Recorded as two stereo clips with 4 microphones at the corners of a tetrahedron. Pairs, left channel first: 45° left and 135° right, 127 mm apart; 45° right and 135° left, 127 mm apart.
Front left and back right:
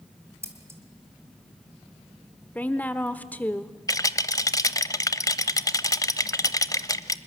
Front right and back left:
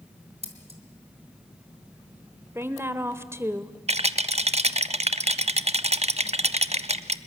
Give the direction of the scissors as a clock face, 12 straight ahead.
7 o'clock.